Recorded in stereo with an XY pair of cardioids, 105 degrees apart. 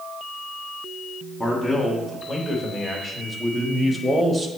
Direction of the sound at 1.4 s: 10° left.